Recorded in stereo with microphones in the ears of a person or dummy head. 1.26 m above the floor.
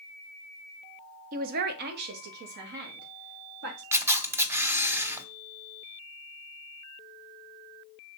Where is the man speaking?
40° right (ahead or behind), 0.8 m; by 3.8 s 55° right (ahead or behind), 3 m.